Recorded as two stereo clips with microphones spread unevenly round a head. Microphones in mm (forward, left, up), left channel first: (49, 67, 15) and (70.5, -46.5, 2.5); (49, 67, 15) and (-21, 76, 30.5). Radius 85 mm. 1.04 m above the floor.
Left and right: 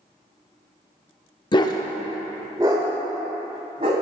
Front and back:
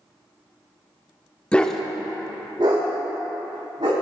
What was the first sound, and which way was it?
A dog barking, 75° left.